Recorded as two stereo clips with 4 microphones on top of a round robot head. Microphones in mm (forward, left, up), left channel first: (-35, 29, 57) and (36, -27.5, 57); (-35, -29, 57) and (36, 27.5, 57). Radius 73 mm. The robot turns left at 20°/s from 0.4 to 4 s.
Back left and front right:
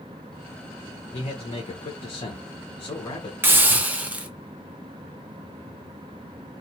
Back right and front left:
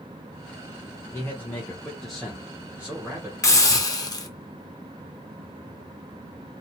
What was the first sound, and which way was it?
A man speaking, 150° left.